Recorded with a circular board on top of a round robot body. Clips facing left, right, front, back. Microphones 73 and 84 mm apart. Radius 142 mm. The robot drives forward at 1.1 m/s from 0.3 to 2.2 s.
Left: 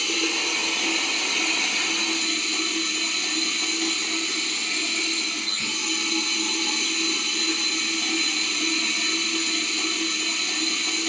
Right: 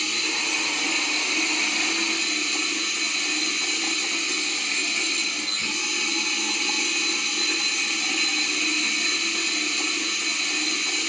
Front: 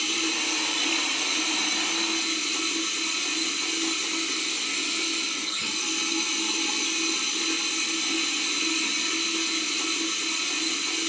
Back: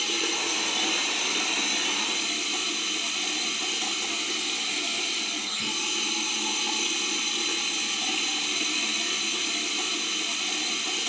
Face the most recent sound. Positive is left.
turn(degrees=140)